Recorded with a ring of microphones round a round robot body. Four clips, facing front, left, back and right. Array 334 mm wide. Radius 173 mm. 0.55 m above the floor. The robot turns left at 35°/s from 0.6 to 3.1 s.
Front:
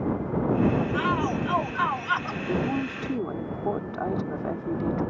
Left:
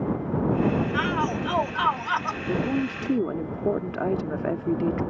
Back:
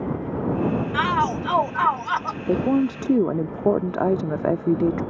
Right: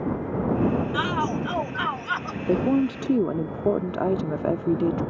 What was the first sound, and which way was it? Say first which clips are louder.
A shout: even, back 4 dB; 170° right.